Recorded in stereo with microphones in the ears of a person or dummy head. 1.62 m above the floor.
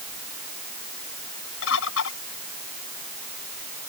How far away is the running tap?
I don't hear a running tap.